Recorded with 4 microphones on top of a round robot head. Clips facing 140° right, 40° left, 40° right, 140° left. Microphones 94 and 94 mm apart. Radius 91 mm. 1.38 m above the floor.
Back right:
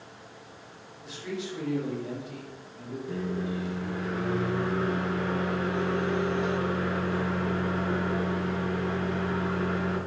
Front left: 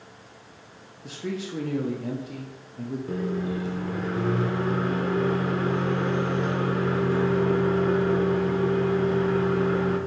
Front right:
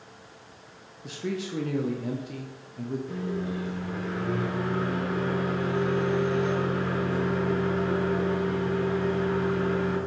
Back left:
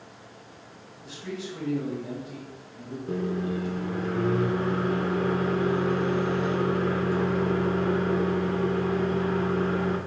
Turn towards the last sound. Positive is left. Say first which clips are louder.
# front left 2 dB, back left 3 dB
turn(degrees=90)